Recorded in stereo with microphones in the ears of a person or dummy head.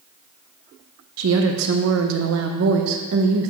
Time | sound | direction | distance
1.2 | a woman speaking | 75° right (ahead or behind) | 0.7 m